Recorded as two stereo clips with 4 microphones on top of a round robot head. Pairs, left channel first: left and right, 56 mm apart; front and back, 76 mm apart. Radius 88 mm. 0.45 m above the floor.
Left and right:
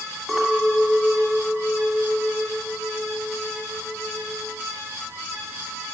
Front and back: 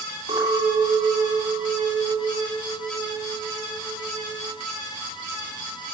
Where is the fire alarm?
I don't hear a fire alarm.